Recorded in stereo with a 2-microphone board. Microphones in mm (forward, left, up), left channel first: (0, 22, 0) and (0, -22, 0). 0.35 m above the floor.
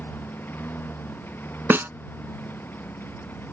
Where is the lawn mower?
50° left (ahead or behind).